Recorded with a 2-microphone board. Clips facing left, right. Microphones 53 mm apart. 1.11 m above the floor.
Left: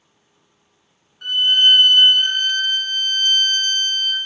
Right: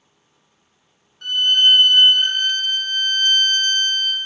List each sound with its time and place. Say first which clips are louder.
1.2 s a violin: left 1 dB; 10° left (ahead or behind), 0.8 m